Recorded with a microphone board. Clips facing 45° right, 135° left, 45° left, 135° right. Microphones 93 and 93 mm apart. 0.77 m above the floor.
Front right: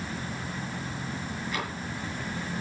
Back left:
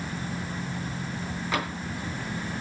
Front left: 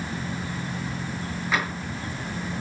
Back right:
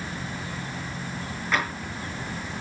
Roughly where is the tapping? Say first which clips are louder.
Back left 5 dB, even; behind left.